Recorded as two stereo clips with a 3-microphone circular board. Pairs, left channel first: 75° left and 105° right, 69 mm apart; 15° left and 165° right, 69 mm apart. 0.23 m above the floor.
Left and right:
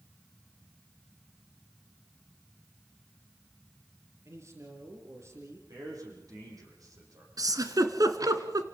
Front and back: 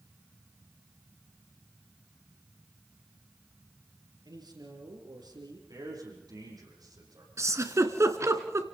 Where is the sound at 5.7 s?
140° right, 8.5 m.